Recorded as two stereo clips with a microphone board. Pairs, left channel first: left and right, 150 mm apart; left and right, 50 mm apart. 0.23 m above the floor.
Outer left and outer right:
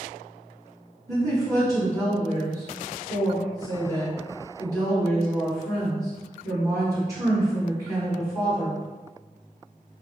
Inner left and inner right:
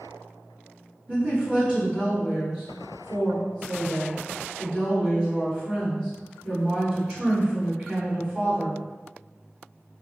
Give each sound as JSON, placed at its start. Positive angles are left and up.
{"t": 1.1, "sound": "a woman speaking", "side_deg": -25, "distance_m": 1.6}